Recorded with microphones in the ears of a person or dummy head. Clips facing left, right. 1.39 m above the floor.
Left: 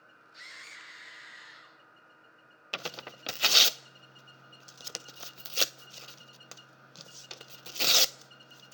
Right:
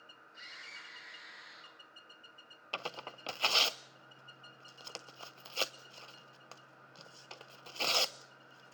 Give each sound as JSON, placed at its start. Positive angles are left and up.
{"t": 0.3, "sound": "a scream", "side_deg": 55, "distance_m": 9.5}
{"t": 2.7, "sound": "tearing paper", "side_deg": 25, "distance_m": 0.6}